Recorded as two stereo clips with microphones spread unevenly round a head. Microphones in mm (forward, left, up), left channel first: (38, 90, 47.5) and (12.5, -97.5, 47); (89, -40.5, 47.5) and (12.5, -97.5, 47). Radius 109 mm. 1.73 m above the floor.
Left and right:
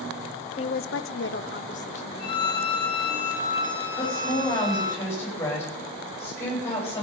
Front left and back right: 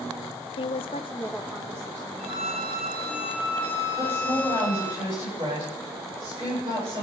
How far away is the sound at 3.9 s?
About 10 m.